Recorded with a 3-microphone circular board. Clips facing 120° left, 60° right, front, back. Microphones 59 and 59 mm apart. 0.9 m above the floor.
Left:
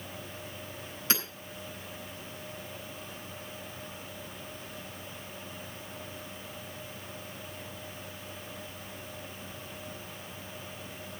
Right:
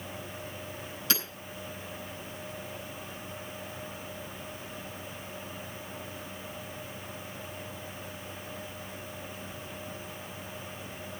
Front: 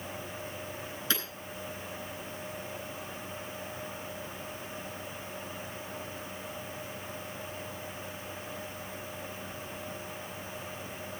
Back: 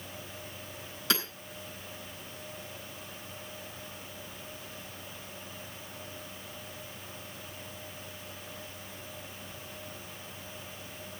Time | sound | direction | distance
1.1 | hammering | 175° right | 9.5 m